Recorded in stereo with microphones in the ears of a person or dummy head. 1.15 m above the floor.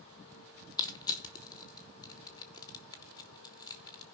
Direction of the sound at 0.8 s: 15° left (ahead or behind).